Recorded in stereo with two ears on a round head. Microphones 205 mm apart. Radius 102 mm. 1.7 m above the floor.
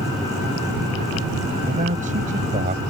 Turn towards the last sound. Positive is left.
turn(degrees=-30)  # may be behind; listen again after turning